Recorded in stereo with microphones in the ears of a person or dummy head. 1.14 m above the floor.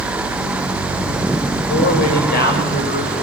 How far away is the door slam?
No door slam in this recording.